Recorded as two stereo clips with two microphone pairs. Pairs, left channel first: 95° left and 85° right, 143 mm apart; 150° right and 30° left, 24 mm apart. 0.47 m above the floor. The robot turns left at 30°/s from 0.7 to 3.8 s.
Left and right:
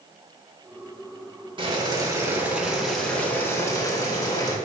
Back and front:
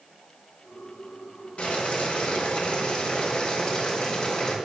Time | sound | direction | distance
1.6 | boiling | 135° right | 0.7 m